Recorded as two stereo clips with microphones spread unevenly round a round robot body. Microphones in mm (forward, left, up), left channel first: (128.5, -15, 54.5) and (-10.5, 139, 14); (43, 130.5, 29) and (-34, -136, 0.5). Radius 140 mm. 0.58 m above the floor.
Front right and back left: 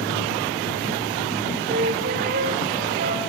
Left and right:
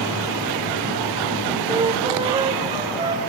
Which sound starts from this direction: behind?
A flute, at 1.7 s.